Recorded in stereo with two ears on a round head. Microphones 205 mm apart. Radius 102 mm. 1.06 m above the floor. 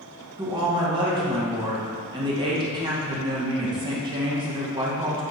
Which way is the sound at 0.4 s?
20° right (ahead or behind).